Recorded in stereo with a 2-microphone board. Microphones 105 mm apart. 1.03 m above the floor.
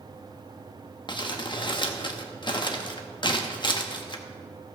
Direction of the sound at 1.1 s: 40° left (ahead or behind).